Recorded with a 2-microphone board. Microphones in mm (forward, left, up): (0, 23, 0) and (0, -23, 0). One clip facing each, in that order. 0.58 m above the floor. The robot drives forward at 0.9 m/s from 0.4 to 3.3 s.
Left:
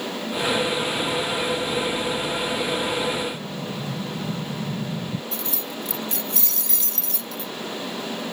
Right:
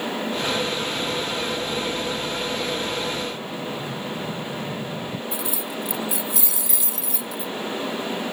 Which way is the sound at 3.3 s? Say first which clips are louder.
Right 1 dB; 45° left (ahead or behind).